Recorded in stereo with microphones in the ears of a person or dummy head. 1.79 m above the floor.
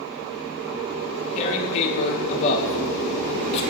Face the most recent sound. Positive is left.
turn(degrees=30)  # may be behind; listen again after turning